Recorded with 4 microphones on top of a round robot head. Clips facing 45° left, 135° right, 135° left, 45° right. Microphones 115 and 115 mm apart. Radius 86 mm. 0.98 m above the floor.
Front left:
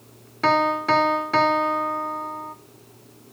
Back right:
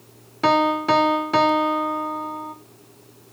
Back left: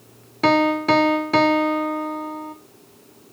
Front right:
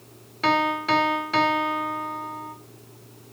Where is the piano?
155° left, 1.1 m.